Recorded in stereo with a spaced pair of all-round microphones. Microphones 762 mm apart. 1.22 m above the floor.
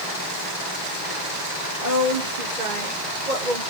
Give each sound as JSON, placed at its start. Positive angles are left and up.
{"t": 1.8, "sound": "a woman speaking", "side_deg": -80, "distance_m": 3.0}